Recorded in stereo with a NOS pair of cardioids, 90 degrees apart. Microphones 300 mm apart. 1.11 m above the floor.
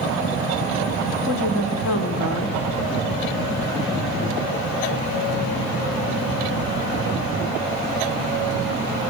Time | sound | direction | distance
1.3 | a woman speaking | 65° left | 3 m